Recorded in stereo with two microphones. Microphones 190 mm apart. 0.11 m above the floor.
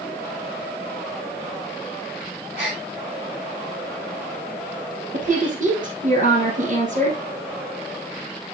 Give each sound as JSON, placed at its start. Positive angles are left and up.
{"t": 2.6, "sound": "a gasp", "side_deg": -60, "distance_m": 5.5}
{"t": 5.1, "sound": "a woman speaking", "side_deg": -45, "distance_m": 2.5}